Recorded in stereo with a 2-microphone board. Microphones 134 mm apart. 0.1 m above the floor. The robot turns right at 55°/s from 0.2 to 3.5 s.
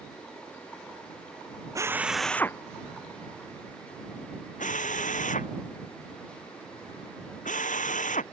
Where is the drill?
25° right (ahead or behind); by 8.2 s 70° left (ahead or behind).